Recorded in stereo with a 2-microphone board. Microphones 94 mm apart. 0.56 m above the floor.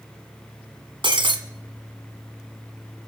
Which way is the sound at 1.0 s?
65° right (ahead or behind).